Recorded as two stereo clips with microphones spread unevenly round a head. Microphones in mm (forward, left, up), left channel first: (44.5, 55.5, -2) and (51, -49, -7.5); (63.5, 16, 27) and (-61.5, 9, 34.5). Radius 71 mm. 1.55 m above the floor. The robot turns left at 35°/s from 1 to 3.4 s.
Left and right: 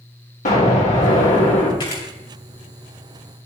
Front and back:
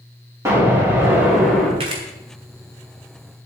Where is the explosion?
115° left, 3.5 m; by 1.7 s 90° left, 3.5 m.